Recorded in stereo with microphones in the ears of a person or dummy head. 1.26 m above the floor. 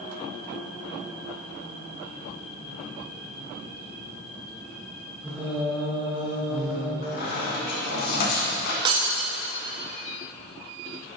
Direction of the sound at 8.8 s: 30° right (ahead or behind).